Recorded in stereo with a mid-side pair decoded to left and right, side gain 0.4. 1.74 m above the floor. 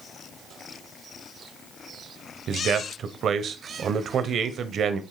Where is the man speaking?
65° right, 1.2 m.